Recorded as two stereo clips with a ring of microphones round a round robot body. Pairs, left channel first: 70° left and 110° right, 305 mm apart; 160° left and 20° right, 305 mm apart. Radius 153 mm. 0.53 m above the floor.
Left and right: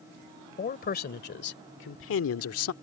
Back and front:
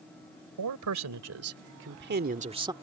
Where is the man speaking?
5° left; by 2.7 s 50° left.